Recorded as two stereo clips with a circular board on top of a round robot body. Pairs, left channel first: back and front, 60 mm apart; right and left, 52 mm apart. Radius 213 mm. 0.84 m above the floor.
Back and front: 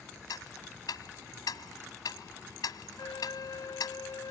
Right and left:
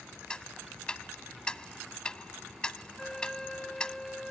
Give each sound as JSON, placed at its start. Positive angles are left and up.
{"t": 0.3, "sound": "ticking", "azimuth_deg": -165}
{"t": 3.0, "sound": "a flute", "azimuth_deg": -170}